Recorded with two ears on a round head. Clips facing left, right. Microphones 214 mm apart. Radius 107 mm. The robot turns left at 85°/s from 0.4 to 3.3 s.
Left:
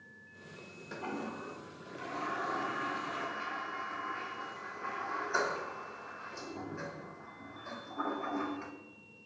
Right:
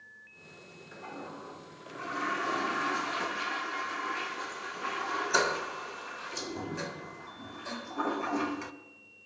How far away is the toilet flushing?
About 0.5 m.